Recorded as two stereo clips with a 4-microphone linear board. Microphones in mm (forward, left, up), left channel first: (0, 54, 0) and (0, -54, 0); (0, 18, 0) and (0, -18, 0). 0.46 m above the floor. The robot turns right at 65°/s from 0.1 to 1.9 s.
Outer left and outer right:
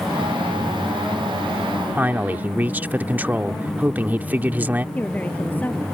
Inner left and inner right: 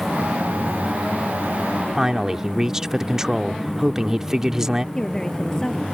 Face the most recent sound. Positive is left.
turn(degrees=15)  # may be behind; listen again after turning